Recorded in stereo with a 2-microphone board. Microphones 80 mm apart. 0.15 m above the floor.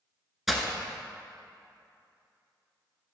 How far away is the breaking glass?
About 0.6 m.